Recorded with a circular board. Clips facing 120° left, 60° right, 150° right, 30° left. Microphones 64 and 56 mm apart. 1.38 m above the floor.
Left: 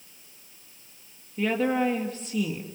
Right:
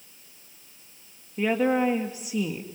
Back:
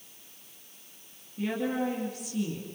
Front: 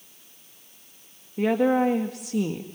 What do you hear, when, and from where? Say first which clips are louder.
1.4 s a woman speaking: right 2 dB, front 9 dB; 20° left, 1.8 m